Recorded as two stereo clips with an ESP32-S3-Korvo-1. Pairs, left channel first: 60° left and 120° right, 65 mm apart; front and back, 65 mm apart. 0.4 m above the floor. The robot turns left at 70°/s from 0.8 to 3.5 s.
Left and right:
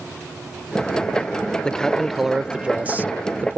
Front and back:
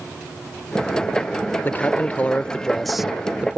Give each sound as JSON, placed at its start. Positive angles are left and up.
{"t": 1.6, "sound": "a man speaking", "azimuth_deg": 0}